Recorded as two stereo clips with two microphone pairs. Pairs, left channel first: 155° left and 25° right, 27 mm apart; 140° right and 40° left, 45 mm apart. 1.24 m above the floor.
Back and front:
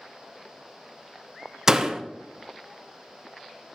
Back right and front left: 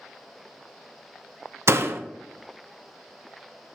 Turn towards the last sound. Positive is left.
turn(degrees=45)